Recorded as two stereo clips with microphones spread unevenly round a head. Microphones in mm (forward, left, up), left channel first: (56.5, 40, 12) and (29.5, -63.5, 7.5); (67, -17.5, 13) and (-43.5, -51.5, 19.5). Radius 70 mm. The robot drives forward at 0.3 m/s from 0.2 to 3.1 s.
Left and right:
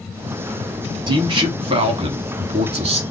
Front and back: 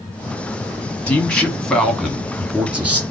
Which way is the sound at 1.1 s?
60° right.